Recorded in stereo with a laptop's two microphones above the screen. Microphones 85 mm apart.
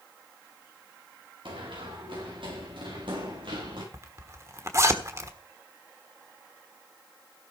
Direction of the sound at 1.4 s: 75° right (ahead or behind).